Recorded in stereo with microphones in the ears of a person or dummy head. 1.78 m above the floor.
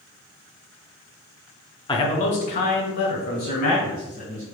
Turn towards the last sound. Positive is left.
turn(degrees=40)  # may be behind; listen again after turning